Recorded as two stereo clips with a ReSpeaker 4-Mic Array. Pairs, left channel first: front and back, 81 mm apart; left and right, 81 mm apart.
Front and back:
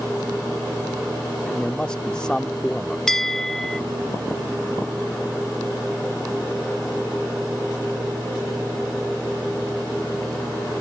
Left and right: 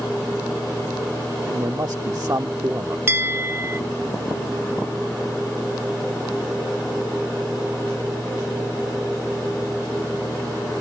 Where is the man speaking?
75° right.